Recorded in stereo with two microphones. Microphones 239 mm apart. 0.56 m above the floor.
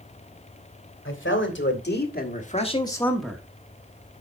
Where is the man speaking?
60° left (ahead or behind), 2.5 m; by 3.4 s 10° right (ahead or behind), 1.3 m.